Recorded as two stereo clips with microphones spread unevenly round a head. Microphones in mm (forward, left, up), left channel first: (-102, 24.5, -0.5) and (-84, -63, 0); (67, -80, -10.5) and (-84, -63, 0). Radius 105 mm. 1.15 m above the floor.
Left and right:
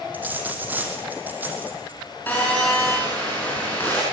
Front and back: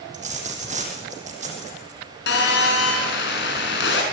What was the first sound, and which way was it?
A dropped coin, 150° right.